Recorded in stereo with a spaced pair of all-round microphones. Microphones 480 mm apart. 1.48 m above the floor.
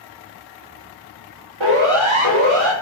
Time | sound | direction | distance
1.6 | a siren | 65° right (ahead or behind) | 7 m